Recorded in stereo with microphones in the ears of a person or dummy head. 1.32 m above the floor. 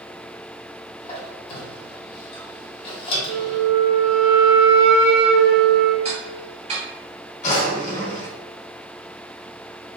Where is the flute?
60° right (ahead or behind), 0.9 m.